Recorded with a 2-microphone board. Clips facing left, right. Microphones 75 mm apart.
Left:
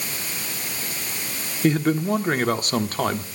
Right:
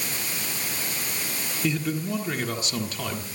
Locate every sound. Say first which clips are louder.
1.6 s a man speaking: left 7 dB; 45° left (ahead or behind), 1.6 m